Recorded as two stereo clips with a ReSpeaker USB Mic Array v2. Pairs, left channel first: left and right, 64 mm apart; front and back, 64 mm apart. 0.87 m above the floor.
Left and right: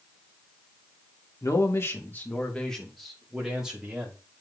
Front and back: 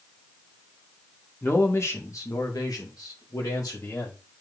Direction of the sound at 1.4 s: 55° left.